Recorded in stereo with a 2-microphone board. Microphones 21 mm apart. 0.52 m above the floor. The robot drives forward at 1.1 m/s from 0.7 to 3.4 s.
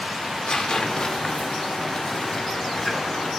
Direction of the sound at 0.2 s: 45° left (ahead or behind).